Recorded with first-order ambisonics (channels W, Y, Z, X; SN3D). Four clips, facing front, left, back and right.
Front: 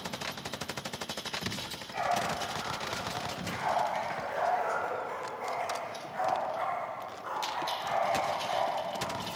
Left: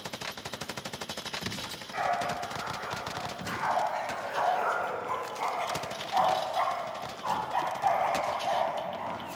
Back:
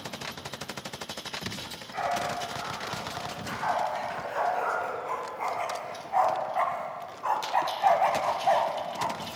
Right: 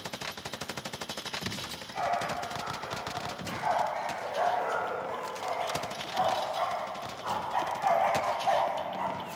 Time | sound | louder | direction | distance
1.6 | a dog barking | left 2 dB, back 2 dB | 115° left | 5 m